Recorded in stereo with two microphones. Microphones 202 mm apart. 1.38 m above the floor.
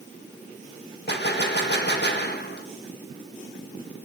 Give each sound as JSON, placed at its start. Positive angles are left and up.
{"t": 1.1, "sound": "a gunshot", "side_deg": 60, "distance_m": 1.3}